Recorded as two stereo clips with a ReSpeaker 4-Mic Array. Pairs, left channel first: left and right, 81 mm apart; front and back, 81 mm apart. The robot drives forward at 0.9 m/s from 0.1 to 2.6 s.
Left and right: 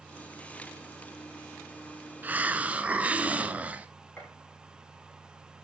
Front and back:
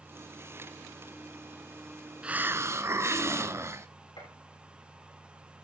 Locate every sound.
2.2 s a hiss: 125° right, 0.7 m; by 3.9 s 150° right, 0.9 m
4.2 s a gunshot: 20° left, 7 m